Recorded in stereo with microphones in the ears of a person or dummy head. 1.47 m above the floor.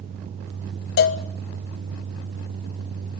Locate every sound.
1.0 s a cowbell: 60° left (ahead or behind), 1.1 m